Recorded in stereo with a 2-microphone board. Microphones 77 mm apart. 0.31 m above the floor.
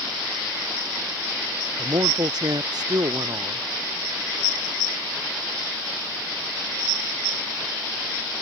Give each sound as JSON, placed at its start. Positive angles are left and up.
{"t": 1.8, "sound": "a man speaking", "side_deg": -60}